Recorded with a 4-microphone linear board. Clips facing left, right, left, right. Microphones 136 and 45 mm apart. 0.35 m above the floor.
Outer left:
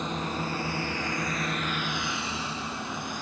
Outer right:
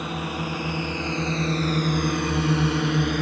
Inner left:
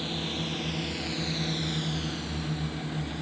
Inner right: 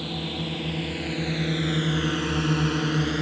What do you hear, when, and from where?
0.0 s a drone: 10° right (ahead or behind); by 3.2 s 65° right (ahead or behind)